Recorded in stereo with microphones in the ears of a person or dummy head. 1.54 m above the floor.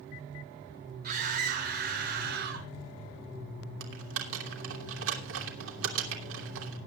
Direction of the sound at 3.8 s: 75° right (ahead or behind).